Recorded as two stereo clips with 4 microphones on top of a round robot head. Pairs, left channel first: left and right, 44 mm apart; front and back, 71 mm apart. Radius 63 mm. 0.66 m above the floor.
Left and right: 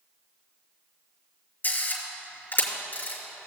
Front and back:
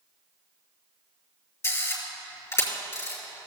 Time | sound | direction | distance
1.6 | a camera shutter | 55° left | 4 m